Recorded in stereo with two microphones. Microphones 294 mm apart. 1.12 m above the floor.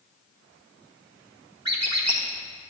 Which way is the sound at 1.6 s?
60° right (ahead or behind).